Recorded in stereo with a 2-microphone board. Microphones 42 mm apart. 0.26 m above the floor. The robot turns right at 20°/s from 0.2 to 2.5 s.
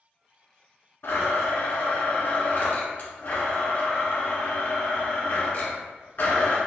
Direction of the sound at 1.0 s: 75° left (ahead or behind).